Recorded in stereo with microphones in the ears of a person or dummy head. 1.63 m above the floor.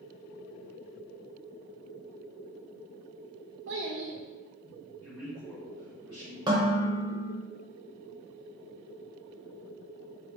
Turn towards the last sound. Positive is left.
turn(degrees=-20)  # may be behind; listen again after turning